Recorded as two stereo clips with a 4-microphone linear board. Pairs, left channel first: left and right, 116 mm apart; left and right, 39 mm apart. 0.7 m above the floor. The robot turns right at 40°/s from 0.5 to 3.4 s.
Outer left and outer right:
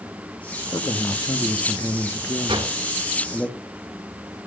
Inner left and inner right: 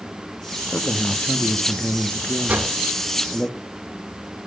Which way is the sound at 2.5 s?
40° right (ahead or behind).